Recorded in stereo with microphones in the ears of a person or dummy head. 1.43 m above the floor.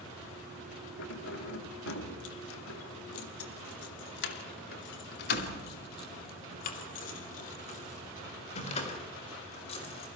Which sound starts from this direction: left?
Keys jangling, at 1.0 s.